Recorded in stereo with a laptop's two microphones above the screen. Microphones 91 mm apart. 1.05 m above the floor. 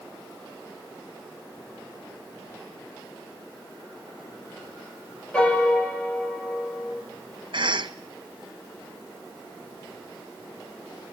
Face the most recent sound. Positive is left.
turn(degrees=-60)  # may be behind; listen again after turning